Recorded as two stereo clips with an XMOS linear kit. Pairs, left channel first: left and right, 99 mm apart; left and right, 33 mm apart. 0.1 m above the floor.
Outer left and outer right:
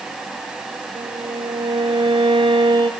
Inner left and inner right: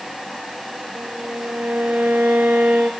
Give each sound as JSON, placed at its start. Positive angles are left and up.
{"t": 0.9, "sound": "a violin", "side_deg": -60, "distance_m": 2.5}